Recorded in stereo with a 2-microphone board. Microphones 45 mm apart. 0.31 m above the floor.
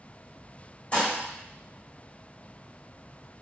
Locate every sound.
0.9 s dishes clattering: 30° left (ahead or behind), 0.8 m